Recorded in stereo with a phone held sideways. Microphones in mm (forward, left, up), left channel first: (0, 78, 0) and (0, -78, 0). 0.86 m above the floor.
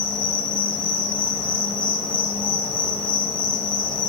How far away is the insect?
About 0.7 m.